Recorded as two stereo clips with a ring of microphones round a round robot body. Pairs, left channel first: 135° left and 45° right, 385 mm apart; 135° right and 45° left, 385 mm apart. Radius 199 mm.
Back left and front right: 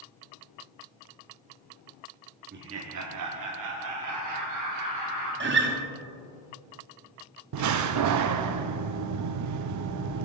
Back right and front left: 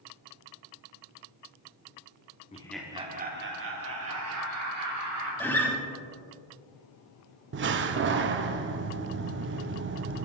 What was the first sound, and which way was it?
Laughter, 80° right.